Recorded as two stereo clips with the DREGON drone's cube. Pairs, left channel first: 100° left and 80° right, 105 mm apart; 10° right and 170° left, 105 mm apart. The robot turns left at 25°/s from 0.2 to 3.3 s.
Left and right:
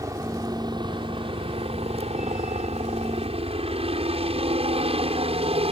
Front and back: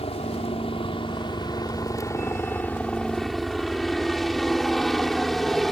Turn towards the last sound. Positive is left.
turn(degrees=-100)